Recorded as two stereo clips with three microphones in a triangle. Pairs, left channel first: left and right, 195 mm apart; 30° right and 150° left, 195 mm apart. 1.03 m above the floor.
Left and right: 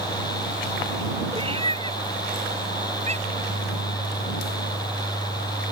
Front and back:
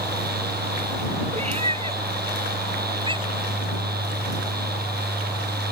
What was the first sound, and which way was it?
A cat meowing, 155° right.